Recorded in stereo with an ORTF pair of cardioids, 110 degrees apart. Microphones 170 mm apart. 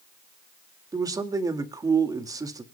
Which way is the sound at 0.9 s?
20° right.